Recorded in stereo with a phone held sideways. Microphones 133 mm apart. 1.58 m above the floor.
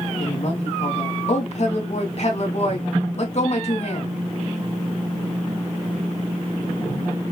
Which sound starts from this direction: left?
A woman speaking, at 0.2 s.